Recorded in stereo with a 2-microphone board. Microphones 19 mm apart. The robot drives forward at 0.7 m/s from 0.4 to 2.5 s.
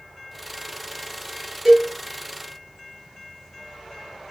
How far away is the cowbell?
About 3.5 m.